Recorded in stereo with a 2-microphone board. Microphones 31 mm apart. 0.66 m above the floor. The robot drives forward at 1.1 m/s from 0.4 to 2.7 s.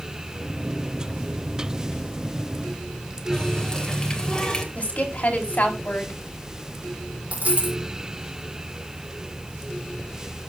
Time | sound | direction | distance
3.3 | a running tap | 25° left (ahead or behind) | 1.7 m
4.8 | a woman speaking | 55° left (ahead or behind) | 2.5 m
7.3 | a dropped coin | 50° right (ahead or behind) | 4.5 m